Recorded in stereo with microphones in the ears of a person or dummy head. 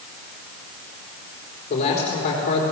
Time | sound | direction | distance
1.7 | a man speaking | 40° left (ahead or behind) | 4 m